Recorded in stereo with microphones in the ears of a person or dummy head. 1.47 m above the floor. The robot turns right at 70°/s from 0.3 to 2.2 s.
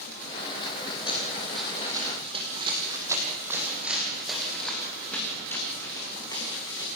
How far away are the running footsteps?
About 4 m.